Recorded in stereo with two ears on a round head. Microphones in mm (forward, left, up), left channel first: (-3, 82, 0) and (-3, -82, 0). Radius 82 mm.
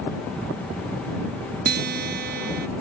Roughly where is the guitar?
Right.